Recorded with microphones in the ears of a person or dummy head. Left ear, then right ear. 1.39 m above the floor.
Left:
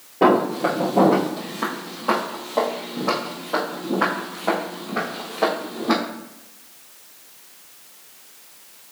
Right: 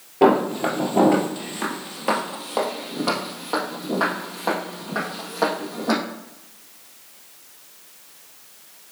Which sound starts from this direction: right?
Footsteps, at 0.2 s.